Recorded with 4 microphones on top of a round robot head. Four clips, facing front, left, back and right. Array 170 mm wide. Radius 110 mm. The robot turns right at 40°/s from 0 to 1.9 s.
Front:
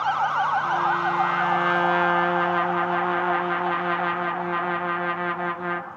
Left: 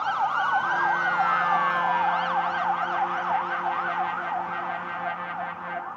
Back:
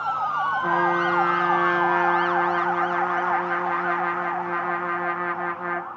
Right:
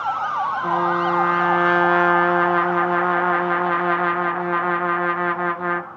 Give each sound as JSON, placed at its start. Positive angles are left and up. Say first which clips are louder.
{"t": 0.6, "sound": "a trumpet", "louder": "right 4 dB, back 1 dB", "azimuth_deg": -130, "distance_m": 0.7}